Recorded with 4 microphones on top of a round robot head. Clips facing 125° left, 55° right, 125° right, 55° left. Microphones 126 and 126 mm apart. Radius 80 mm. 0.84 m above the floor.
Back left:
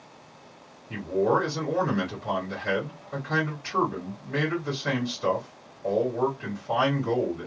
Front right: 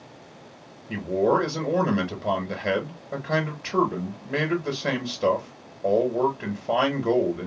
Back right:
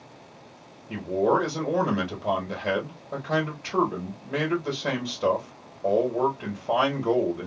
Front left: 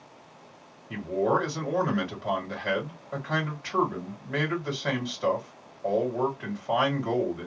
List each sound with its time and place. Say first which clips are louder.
0.9 s a man speaking: front right 2 dB, back right 3 dB; 65° right, 1.5 m